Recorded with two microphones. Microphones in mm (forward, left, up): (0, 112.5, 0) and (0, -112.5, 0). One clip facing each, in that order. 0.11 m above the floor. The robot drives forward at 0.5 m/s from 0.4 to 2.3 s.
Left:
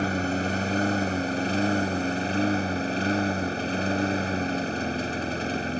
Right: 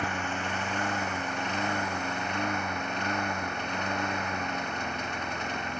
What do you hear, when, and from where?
0.0 s a lawn mower: 35° left (ahead or behind)